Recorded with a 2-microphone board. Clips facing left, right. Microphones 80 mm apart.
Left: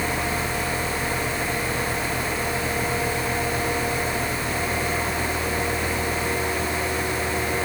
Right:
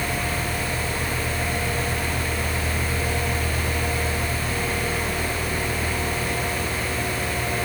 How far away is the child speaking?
I don't hear a child speaking.